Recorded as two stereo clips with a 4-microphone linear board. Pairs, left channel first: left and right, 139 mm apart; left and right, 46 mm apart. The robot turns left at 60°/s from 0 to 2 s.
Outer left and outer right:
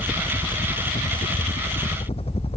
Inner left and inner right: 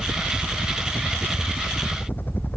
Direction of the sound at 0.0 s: 170° left.